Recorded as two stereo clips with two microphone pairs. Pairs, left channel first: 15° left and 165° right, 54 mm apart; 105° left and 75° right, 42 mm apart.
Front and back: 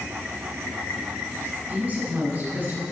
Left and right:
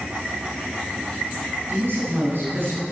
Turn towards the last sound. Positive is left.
turn(degrees=-110)